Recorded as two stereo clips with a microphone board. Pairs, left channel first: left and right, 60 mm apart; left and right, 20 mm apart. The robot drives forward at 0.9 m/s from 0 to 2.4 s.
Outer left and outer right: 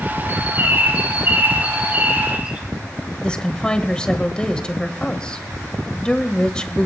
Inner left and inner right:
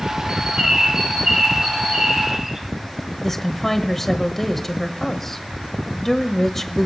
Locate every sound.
0.3 s a bird: 40° right (ahead or behind), 4 m; by 2.6 s 25° right (ahead or behind), 6 m
3.2 s a woman speaking: 15° left (ahead or behind), 1.2 m